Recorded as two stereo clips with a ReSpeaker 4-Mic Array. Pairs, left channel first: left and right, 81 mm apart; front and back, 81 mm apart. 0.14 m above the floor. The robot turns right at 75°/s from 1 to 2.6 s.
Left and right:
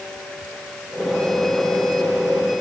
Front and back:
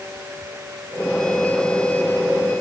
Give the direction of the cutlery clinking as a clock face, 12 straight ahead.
I don't hear cutlery clinking.